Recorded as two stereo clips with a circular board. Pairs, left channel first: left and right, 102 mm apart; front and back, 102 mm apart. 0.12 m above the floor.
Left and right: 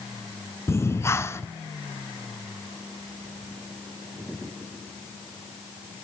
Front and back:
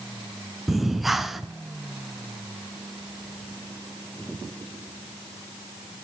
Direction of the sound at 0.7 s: 95° left.